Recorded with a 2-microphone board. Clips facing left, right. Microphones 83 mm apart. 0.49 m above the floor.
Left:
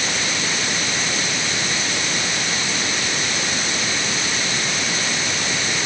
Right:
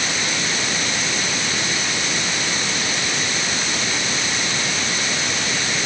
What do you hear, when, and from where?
Only background noise.